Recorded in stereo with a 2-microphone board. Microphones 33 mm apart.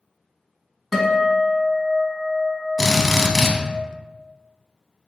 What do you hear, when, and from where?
0.9 s a guitar: 10° right (ahead or behind), 1.2 m
2.8 s a drill: 10° left (ahead or behind), 0.7 m